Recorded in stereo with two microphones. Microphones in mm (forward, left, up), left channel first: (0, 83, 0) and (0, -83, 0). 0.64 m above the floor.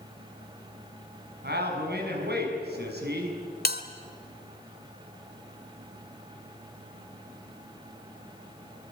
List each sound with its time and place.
1.4 s a man speaking: 70° right (ahead or behind), 6 m
3.6 s a bell: 65° left (ahead or behind), 1.7 m